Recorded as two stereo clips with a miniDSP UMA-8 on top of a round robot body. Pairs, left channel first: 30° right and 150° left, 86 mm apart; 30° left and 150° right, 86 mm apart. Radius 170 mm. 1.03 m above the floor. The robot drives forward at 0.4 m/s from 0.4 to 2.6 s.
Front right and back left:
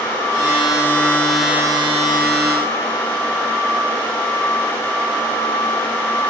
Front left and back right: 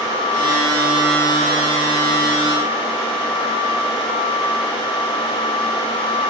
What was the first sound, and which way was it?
Only background noise.